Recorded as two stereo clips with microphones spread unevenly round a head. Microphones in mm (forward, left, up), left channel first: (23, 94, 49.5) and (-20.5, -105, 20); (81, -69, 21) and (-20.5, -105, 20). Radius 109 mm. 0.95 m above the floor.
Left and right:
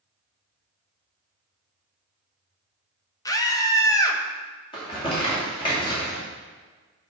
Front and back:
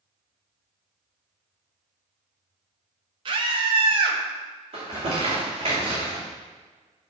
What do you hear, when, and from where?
3.2 s a scream: 155° left, 1.1 m
4.7 s crumpling: 145° left, 2.5 m